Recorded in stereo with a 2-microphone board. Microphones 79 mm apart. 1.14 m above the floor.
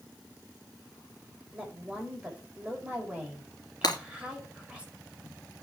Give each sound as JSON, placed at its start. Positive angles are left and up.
{"t": 1.5, "sound": "a woman speaking", "side_deg": -15, "distance_m": 5.5}
{"t": 3.8, "sound": "breaking glass", "side_deg": 60, "distance_m": 3.0}